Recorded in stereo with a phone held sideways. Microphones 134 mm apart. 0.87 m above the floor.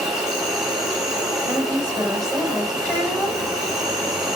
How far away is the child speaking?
About 4 m.